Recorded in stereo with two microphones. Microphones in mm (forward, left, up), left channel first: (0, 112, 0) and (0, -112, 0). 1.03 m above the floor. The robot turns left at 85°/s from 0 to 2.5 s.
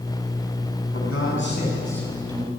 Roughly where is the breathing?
No breathing in this recording.